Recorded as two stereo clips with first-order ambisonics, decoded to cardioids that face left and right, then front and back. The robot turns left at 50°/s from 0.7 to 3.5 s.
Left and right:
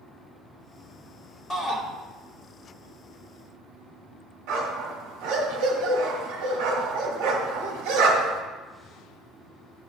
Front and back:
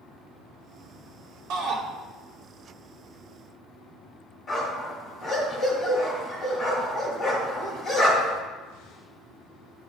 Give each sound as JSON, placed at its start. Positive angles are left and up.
{"t": 1.5, "sound": "a shout", "azimuth_deg": 160, "distance_m": 1.7}
{"t": 4.5, "sound": "a dog barking", "azimuth_deg": -65, "distance_m": 2.0}